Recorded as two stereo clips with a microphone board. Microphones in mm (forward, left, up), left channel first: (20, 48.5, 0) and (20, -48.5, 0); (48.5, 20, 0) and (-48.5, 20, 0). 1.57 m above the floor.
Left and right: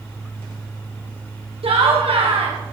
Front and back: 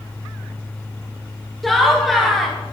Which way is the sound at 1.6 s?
90° right.